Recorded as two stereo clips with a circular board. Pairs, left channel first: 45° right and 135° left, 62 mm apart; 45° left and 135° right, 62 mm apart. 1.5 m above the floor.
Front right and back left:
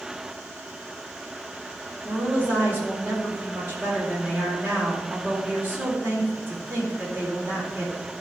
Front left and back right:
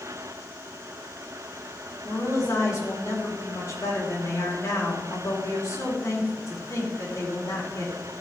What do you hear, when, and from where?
2.0 s a woman speaking: 75° left, 4 m